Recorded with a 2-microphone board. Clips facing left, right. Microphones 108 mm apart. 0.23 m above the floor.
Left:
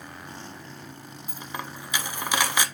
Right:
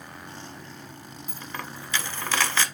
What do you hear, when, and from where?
1.3 s a dropped coin: 15° left (ahead or behind), 0.7 m